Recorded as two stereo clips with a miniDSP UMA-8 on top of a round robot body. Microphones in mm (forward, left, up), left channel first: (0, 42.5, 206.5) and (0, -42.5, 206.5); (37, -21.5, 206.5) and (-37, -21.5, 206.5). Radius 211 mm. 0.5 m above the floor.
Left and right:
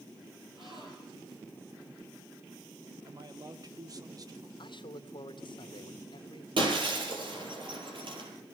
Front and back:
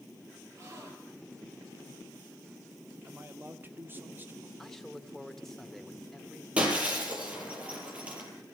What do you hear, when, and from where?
0.6 s a gasp: 125° right, 5.5 m
3.0 s a man speaking: 120° right, 2.5 m
4.6 s a man speaking: 85° left, 2.5 m
6.6 s breaking glass: 105° right, 7.5 m